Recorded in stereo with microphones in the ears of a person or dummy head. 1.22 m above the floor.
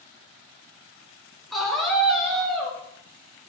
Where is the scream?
Centre (ahead or behind), 0.8 m.